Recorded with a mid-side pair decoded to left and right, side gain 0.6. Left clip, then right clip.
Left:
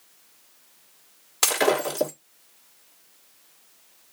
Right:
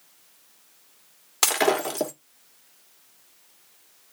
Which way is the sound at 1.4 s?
15° right.